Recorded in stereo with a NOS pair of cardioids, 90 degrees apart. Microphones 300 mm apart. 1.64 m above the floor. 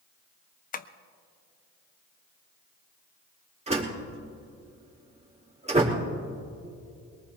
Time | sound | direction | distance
0.7 | tapping | 30° left | 0.7 m
3.7 | a door slam | 20° right | 3 m